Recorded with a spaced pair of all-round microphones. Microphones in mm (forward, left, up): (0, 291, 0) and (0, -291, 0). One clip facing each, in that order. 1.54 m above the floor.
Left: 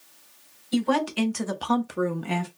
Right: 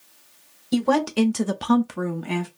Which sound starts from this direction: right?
A woman speaking, at 0.7 s.